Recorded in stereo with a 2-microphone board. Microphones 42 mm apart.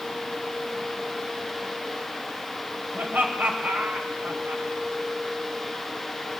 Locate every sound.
2.9 s laughter: 50° right (ahead or behind), 3 m